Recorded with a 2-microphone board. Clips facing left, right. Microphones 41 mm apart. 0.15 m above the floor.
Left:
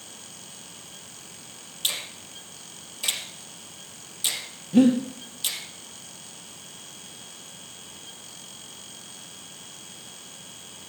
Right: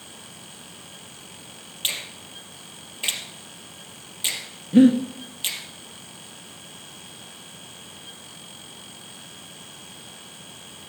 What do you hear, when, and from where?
1.8 s a finger snap: 35° right (ahead or behind), 2.5 m
4.7 s breathing: 30° right (ahead or behind), 2 m